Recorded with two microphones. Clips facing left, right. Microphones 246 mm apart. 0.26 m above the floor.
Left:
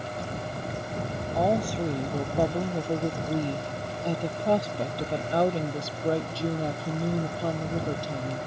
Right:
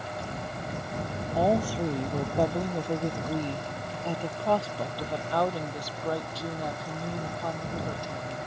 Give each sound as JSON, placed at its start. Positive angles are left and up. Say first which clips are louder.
{"t": 1.4, "sound": "a woman speaking", "louder": "even", "side_deg": -5}